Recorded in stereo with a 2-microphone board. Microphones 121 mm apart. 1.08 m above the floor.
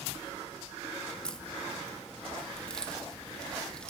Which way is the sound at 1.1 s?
10° left (ahead or behind).